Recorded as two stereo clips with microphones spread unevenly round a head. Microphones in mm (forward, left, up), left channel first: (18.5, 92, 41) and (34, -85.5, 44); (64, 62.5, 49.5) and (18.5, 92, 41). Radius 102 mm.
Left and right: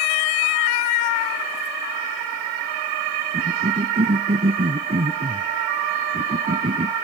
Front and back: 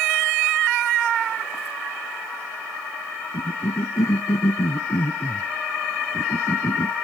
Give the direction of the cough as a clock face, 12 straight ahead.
1 o'clock.